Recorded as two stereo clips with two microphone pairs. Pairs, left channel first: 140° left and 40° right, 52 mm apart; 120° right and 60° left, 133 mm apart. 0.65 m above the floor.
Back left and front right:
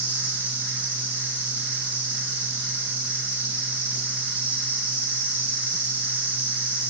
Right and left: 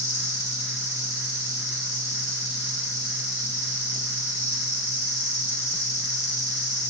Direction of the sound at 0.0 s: 95° right.